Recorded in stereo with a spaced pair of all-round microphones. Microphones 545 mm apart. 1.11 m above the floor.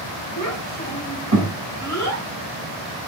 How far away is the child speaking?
About 3.5 m.